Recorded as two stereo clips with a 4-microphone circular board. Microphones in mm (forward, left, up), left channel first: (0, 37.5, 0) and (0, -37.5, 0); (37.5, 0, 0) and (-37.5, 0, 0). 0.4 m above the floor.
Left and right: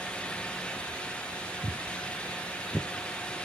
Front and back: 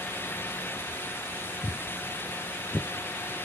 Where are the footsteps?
35° right, 0.8 m; by 2.9 s 35° left, 1.2 m.